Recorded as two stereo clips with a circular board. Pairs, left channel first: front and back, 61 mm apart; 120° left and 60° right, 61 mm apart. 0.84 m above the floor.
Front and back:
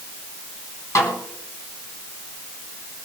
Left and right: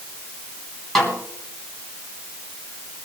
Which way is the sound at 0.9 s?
40° left.